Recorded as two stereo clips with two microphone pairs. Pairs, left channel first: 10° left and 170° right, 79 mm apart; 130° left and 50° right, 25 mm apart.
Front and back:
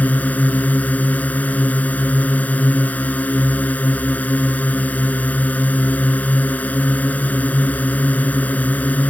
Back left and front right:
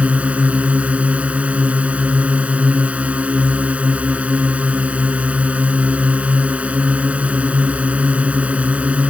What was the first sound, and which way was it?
A drone, 55° right.